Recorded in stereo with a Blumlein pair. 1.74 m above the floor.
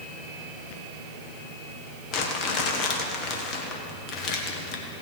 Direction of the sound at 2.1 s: 35° left.